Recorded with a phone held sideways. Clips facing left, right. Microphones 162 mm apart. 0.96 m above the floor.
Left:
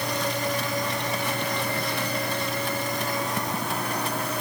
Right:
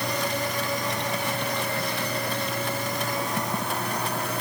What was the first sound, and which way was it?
Only background noise.